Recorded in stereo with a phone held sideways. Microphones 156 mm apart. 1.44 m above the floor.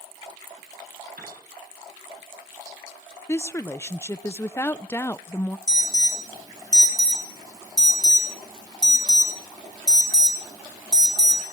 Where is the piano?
80° right, 7 m.